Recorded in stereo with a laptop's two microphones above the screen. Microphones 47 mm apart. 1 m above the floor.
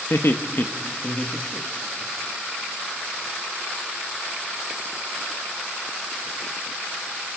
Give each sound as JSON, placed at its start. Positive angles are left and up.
{"t": 0.1, "sound": "laughter", "side_deg": 65, "distance_m": 1.1}